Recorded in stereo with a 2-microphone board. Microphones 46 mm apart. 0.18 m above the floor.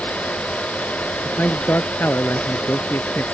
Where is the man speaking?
45° left (ahead or behind).